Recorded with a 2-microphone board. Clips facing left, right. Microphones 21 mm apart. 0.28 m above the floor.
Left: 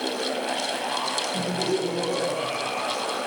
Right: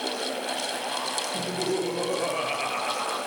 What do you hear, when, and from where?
1.3 s laughter: 15° right (ahead or behind), 6.5 m; by 3.2 s 30° right (ahead or behind), 4.5 m